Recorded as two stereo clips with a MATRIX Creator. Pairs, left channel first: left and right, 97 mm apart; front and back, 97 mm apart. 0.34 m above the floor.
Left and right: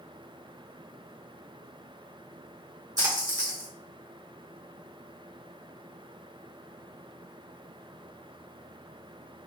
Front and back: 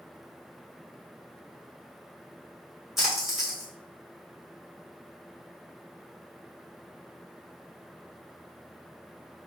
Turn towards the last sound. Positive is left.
turn(degrees=-95)